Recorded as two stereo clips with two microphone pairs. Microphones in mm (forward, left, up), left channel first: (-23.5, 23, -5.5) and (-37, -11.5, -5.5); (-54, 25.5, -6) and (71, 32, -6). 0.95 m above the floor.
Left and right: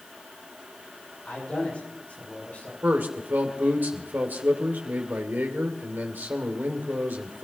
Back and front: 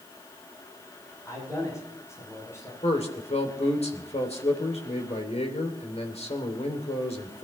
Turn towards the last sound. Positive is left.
turn(degrees=-145)